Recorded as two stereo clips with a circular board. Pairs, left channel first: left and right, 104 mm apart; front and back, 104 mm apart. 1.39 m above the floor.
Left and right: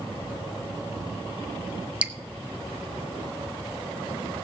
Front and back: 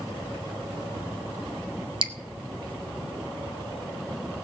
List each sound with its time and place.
2.0 s dripping: 165° right, 1.0 m